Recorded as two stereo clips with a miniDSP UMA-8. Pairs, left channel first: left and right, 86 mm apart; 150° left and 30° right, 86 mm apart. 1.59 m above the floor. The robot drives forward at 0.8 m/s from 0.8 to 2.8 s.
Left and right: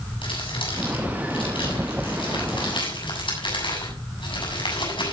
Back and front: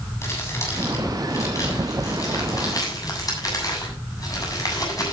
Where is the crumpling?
90° left, 7 m; by 5.1 s 105° left, 7.5 m.